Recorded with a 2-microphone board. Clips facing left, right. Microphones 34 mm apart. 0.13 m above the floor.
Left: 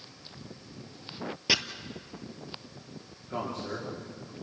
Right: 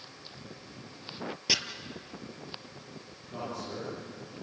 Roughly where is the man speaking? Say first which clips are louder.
Left 3 dB; left.